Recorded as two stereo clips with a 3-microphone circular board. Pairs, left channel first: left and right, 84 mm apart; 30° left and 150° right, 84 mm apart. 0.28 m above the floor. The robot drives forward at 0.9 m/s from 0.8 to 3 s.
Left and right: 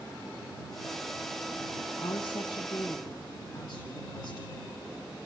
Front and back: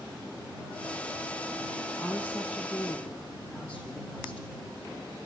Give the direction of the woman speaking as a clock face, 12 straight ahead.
8 o'clock.